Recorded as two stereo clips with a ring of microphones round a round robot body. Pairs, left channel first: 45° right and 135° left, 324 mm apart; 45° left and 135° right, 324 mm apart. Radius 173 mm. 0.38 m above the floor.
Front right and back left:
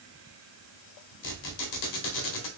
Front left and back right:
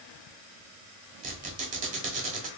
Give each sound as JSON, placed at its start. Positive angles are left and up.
{"t": 1.2, "sound": "a squeak", "azimuth_deg": -70, "distance_m": 1.0}